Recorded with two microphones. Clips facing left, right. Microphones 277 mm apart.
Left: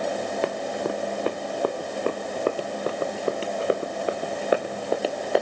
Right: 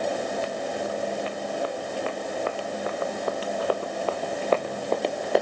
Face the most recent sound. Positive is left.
turn(degrees=0)  # may be behind; listen again after turning